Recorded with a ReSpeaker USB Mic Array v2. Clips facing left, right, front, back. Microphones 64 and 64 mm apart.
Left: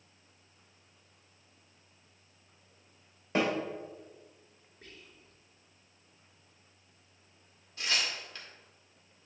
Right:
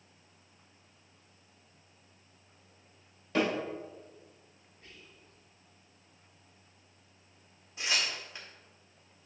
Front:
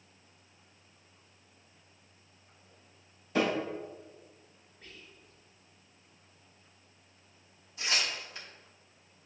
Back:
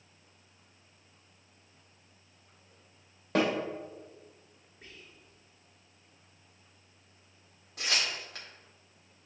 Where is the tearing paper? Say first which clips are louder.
Even, even; 165° right, 1.8 m.